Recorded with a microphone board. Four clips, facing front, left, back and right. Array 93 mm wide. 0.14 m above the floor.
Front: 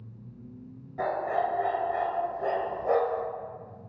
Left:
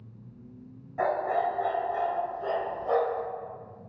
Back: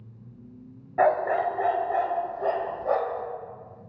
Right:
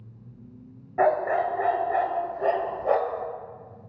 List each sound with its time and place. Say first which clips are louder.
1.0 s a dog barking: right 4 dB, back 6 dB; 140° right, 1.0 m; by 3.2 s 70° right, 1.5 m